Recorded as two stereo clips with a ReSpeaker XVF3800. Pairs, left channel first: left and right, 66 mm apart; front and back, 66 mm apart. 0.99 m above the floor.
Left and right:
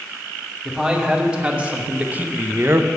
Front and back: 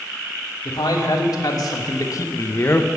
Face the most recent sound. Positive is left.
turn(degrees=-55)